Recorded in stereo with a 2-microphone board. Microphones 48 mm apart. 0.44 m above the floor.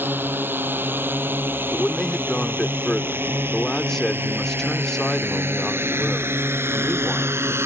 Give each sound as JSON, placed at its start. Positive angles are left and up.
{"t": 0.0, "sound": "a drone", "side_deg": -45}
{"t": 1.7, "sound": "a man speaking", "side_deg": 10}